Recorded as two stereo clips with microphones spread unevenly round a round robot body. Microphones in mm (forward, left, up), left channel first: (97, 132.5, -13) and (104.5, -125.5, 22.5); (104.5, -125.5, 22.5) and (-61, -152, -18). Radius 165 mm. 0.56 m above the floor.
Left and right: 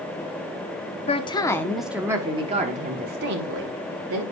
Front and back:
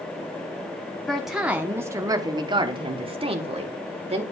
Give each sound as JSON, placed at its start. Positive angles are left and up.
{"t": 1.1, "sound": "a woman speaking", "azimuth_deg": 115, "distance_m": 0.8}